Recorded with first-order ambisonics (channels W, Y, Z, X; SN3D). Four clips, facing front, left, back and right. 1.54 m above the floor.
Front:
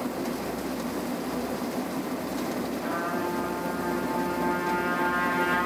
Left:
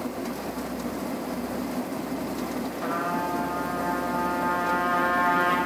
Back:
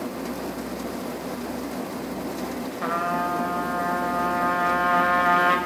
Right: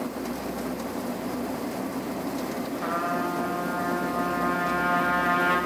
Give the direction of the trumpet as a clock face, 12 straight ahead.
6 o'clock.